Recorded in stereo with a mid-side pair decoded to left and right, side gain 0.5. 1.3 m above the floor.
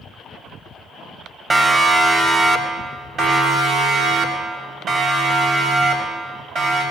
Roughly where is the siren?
Ahead right.